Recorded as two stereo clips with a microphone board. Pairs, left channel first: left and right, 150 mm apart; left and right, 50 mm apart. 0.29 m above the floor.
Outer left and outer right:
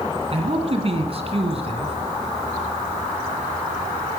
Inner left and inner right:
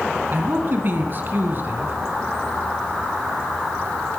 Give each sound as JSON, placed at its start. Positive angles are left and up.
{"t": 0.3, "sound": "a man speaking", "side_deg": -40, "distance_m": 2.5}